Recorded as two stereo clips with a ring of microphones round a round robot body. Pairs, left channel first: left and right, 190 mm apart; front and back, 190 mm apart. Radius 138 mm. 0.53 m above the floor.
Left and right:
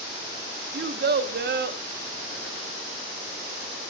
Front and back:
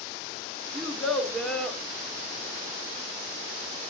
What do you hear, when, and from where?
0.7 s a child speaking: 90° right, 1.1 m